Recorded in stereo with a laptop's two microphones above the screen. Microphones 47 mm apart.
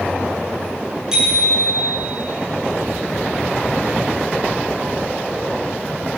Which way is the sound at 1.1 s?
15° right (ahead or behind).